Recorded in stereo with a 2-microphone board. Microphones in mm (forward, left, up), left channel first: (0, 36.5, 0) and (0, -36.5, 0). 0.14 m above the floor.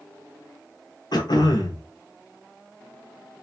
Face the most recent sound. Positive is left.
turn(degrees=70)  # may be behind; listen again after turning